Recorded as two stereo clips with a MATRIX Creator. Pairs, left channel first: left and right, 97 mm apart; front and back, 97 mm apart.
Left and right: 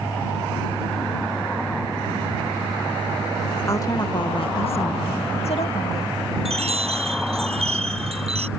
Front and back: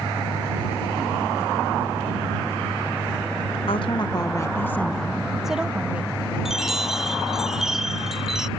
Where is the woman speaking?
30° left; by 6.2 s 105° left.